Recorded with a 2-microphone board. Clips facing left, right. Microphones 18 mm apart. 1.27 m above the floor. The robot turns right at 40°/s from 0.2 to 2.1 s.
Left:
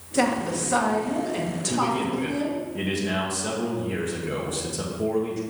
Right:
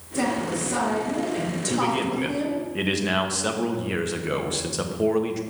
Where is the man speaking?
15° right (ahead or behind), 1.1 m; by 5.4 s 30° right (ahead or behind), 1.1 m.